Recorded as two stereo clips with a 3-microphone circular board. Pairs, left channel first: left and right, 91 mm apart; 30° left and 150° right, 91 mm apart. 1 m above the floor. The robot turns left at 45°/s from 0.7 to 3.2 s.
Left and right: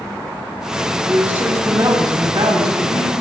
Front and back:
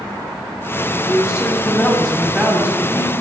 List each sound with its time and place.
1.1 s a man speaking: 10° right, 6.5 m; by 3.2 s 105° right, 6.5 m